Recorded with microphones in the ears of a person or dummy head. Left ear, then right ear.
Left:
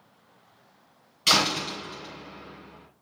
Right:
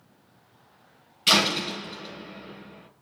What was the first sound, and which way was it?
A door slam, 35° left (ahead or behind).